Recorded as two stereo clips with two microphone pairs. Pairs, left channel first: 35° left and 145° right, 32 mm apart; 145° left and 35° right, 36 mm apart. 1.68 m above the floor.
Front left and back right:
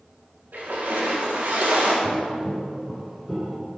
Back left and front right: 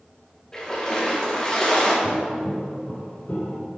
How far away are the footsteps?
About 4 m.